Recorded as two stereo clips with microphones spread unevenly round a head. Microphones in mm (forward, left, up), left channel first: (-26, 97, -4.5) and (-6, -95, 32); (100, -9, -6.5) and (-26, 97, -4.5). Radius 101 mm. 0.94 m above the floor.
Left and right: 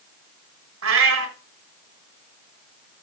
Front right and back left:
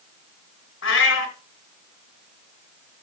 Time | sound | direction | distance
0.8 | a cat meowing | 60° right | 3 m